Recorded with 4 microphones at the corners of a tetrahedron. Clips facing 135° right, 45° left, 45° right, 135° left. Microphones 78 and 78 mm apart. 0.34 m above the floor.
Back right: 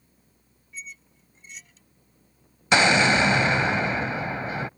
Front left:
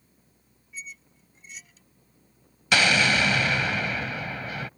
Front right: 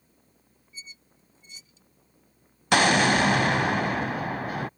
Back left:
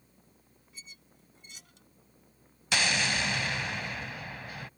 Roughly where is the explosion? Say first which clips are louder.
Back right 3 dB, front right 10 dB; right.